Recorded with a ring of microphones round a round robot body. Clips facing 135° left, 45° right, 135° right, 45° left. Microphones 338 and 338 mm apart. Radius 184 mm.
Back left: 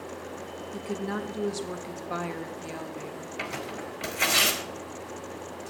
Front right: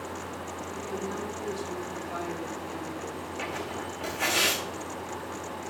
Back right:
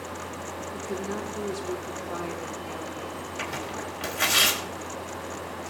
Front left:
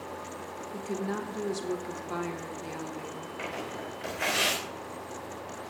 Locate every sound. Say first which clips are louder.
0.7 s a woman speaking: back left 3 dB, even; 125° left, 1.8 m
3.4 s tearing paper: even, back right 1 dB; 170° right, 4.5 m